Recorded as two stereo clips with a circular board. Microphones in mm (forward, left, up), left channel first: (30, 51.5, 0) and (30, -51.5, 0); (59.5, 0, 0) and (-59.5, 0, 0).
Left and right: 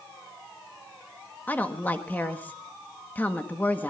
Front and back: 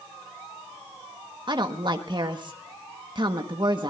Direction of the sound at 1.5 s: 155° left.